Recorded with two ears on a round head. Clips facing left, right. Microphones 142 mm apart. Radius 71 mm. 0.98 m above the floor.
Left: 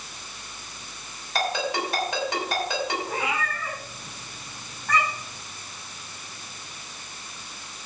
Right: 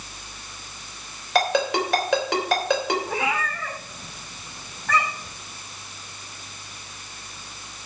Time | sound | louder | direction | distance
1.4 | a ringtone | right 5 dB | 60° right (ahead or behind) | 3.5 m
3.1 | a cat meowing | right 2 dB | 60° right (ahead or behind) | 7.5 m